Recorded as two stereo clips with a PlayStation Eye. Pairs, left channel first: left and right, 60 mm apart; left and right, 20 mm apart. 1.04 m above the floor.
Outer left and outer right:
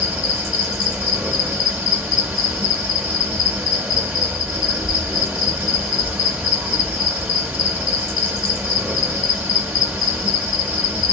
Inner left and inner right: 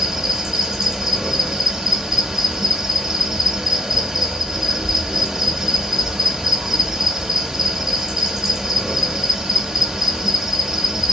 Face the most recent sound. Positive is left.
turn(degrees=-15)  # may be behind; listen again after turning